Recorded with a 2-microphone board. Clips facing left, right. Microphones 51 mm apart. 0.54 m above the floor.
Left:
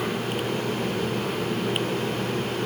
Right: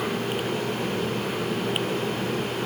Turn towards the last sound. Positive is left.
No sound to turn to.